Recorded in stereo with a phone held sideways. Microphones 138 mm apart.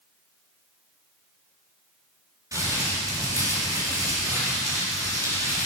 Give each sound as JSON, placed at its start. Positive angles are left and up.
{"t": 2.5, "sound": "crumpling", "side_deg": -25, "distance_m": 4.5}